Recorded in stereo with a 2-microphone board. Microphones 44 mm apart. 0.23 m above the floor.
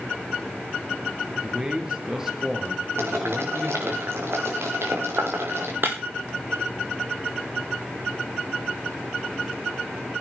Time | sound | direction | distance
1.4 | a man speaking | 15° right (ahead or behind) | 4.5 m
3.0 | boiling | 65° right (ahead or behind) | 7 m
5.8 | breaking glass | 50° right (ahead or behind) | 4.5 m